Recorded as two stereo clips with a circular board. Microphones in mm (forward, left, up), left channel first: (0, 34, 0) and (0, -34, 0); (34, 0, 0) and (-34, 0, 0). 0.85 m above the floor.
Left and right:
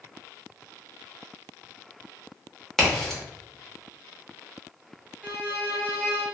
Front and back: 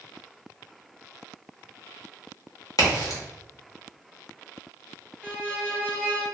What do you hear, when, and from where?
2.8 s a crack: 10° left, 0.9 m
5.2 s a violin: 60° right, 1.0 m